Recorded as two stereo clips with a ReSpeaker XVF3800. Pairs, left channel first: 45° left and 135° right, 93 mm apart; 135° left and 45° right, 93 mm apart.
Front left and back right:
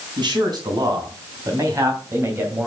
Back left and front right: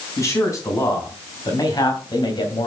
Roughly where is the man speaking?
Behind.